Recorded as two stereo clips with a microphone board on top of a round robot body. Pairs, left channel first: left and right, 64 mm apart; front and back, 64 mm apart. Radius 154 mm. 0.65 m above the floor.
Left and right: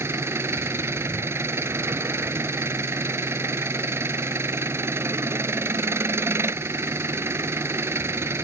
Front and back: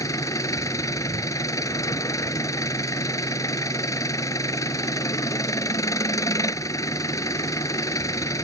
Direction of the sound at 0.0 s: 40° right.